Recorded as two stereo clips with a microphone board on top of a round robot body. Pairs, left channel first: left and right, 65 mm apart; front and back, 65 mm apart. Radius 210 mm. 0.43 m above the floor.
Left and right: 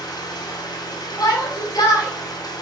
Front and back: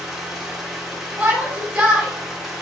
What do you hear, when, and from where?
0.0 s an engine running: 95° left, 2 m
1.2 s a shout: 110° left, 3.5 m